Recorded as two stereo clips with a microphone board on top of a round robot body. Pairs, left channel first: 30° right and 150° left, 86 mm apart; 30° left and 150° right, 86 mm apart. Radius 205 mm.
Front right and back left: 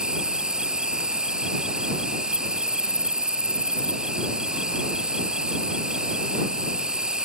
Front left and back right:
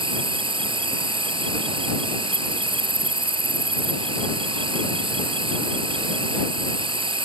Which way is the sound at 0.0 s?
130° right.